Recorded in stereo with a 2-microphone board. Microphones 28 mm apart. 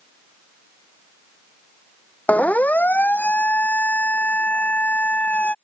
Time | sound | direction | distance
2.3 | a siren | 70° left (ahead or behind) | ?